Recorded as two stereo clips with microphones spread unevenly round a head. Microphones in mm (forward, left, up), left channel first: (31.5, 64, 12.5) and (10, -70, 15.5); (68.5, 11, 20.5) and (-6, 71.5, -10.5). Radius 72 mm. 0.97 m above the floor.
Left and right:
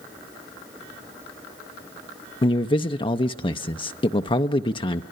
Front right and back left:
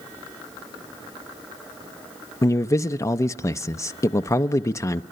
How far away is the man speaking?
About 0.6 m.